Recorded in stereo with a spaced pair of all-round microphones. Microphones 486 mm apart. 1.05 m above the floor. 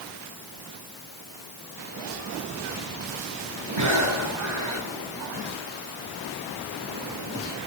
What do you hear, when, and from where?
3.8 s breathing: 80° right, 6 m